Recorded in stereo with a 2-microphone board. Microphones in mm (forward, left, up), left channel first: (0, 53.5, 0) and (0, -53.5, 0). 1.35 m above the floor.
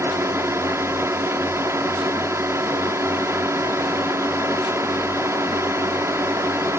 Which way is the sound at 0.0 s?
25° right (ahead or behind).